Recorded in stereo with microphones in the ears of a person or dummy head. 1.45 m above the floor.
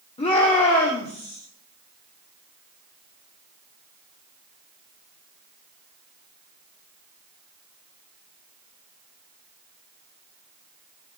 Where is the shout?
35° left (ahead or behind), 3.5 m; by 1.4 s 30° left (ahead or behind), 4.5 m.